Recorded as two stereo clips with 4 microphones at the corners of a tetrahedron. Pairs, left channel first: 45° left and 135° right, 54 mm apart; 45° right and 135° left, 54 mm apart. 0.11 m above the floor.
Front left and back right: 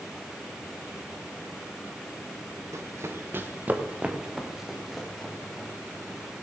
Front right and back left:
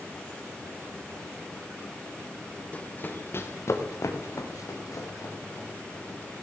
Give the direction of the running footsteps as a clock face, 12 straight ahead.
4 o'clock.